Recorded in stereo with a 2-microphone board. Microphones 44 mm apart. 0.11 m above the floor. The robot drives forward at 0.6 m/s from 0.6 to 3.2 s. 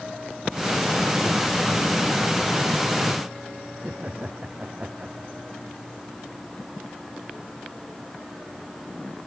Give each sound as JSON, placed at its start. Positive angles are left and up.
{"t": 3.8, "sound": "laughter", "side_deg": -30}